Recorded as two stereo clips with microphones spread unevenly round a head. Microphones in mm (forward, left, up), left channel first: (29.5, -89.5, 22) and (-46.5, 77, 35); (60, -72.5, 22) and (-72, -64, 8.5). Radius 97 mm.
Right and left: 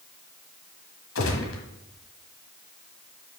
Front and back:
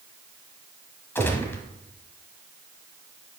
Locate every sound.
1.1 s a gunshot: 75° right, 1.3 m